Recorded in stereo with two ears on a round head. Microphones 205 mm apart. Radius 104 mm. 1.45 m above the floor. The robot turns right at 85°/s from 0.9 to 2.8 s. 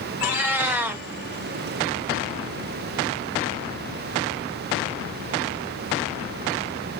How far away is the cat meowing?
About 1.1 m.